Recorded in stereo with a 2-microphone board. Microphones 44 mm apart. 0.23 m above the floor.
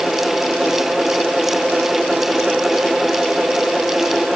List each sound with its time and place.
Only background noise.